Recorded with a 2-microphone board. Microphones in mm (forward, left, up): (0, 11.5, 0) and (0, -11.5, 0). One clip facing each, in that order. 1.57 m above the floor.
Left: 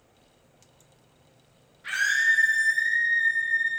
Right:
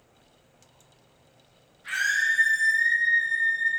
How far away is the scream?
About 2.5 m.